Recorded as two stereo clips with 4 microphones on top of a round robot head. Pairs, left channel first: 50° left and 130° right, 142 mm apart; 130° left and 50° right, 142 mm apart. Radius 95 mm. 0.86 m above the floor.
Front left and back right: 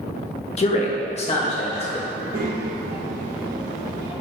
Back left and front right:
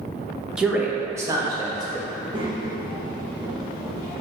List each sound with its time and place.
0.6 s a man speaking: 30° left, 0.8 m; by 2.0 s 5° left, 1.4 m
2.1 s a child speaking: 115° right, 1.4 m